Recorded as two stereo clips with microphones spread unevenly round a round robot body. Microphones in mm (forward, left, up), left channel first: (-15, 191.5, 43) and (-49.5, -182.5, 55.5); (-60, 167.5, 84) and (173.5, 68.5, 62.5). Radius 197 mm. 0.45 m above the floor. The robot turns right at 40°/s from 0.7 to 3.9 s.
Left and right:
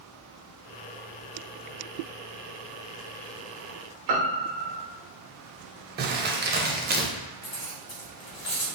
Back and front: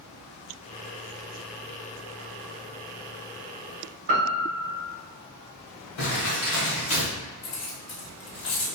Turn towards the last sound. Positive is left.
turn(degrees=145)